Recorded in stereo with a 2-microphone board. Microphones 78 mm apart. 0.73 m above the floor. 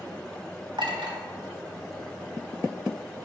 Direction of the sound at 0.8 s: 80° right.